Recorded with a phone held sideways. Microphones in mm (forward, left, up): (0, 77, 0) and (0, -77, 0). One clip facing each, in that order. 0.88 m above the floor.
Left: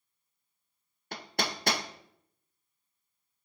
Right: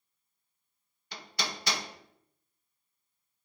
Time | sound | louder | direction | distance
1.1 | hammering | left 4 dB | 55° left (ahead or behind) | 0.7 m